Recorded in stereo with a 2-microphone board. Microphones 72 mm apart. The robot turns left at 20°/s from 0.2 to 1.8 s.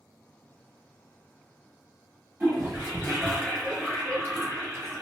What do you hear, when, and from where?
2.4 s a toilet flushing: 30° right (ahead or behind), 1.2 m